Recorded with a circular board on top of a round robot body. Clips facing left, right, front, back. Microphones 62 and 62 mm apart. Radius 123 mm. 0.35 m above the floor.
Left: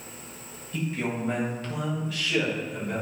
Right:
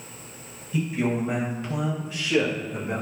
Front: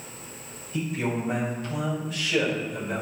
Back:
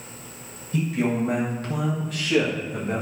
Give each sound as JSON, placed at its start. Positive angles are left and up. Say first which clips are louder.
{"t": 0.7, "sound": "a man speaking", "louder": "right 5 dB, back 4 dB", "azimuth_deg": -175, "distance_m": 2.5}